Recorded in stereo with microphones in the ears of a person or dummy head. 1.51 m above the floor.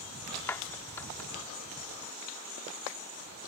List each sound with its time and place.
0.5 s a clap: 10° left (ahead or behind)